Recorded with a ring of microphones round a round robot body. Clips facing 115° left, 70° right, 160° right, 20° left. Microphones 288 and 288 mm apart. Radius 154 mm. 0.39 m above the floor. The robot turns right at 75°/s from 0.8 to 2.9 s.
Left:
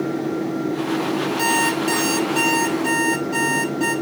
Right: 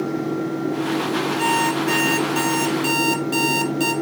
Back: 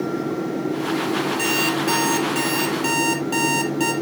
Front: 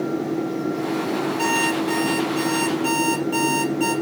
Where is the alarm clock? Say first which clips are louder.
Even, even; 140° left, 5 m; by 3.9 s 105° right, 5 m.